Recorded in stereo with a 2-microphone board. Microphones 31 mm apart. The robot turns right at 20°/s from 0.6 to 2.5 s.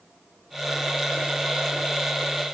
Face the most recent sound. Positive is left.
No sound to turn to.